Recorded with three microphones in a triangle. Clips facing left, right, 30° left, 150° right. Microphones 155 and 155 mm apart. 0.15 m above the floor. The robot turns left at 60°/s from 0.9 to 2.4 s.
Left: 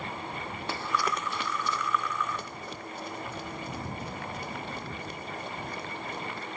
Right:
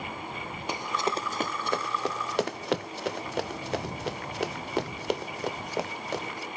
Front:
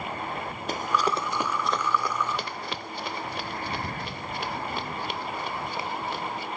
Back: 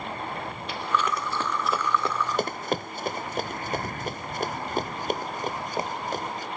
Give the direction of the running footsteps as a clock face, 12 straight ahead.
1 o'clock.